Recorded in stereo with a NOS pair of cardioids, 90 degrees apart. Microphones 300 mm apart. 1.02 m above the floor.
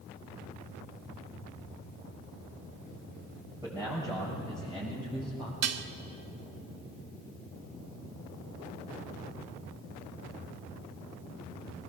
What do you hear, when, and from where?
3.6 s a man speaking: 10° right, 7 m; by 5.5 s 15° right, 5.5 m
5.6 s dishes clattering: 55° right, 1.1 m